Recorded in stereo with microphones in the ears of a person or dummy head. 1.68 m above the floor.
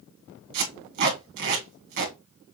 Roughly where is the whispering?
No whispering in this recording.